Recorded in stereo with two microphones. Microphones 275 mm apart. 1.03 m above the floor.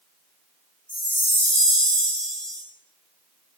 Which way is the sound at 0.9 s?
5° left (ahead or behind).